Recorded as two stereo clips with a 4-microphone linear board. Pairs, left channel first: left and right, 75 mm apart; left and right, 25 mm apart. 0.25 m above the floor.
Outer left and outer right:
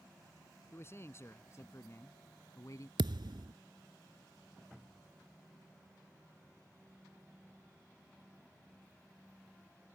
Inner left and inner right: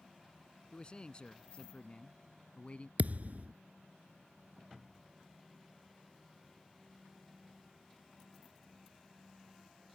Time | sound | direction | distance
0.7 | a man speaking | 35° left (ahead or behind) | ?
3.0 | a thud | 85° right | ?